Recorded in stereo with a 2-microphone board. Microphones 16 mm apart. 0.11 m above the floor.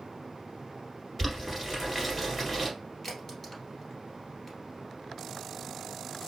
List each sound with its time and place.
1.2 s boiling: 10° left (ahead or behind), 1.4 m
3.0 s a crack: 25° left (ahead or behind), 1.5 m